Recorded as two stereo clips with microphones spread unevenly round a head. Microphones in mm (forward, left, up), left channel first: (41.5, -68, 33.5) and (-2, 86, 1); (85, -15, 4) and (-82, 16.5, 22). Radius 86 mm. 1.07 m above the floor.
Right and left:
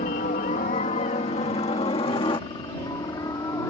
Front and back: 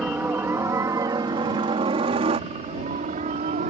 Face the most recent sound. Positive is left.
turn(degrees=-145)